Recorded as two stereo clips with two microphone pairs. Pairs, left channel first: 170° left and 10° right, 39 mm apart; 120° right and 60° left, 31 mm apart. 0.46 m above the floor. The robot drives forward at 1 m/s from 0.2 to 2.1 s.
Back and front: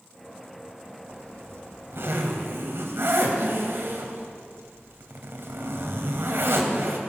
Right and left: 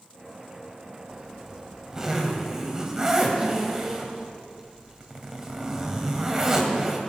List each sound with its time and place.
1.1 s a zipper: 10° right, 3.5 m; by 7.0 s 15° right, 2.5 m